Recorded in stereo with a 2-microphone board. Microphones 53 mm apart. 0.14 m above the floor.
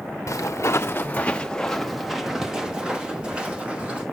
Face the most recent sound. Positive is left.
turn(degrees=-20)  # may be behind; listen again after turning